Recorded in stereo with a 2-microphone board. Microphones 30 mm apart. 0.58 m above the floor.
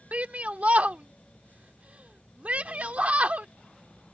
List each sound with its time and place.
0.1 s a shout: 55° right (ahead or behind)